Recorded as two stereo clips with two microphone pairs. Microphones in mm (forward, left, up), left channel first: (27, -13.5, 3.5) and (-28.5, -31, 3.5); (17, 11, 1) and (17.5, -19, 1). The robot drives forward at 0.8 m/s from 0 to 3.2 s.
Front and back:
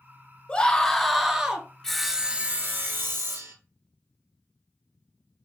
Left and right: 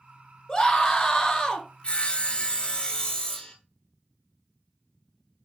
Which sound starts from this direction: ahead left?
A scream, at 0.5 s.